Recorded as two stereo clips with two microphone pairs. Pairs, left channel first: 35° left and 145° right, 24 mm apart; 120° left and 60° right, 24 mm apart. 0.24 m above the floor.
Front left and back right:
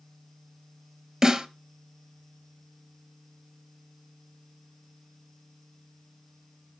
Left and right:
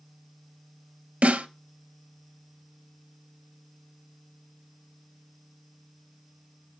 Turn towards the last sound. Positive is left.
turn(degrees=-80)